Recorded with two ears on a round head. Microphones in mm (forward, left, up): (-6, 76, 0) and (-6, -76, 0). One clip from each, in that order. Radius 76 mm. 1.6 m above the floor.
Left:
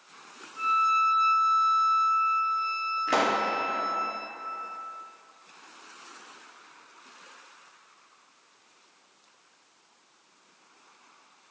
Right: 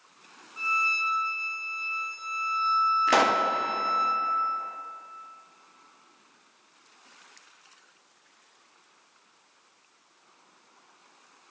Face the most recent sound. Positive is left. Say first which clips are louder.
# left 1 dB
turn(degrees=-30)  # may be behind; listen again after turning